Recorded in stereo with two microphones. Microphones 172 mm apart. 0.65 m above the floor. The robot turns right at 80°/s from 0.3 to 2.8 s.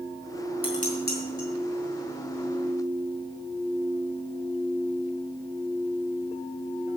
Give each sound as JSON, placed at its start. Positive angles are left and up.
{"t": 0.6, "sound": "dishes clattering", "side_deg": 35, "distance_m": 4.5}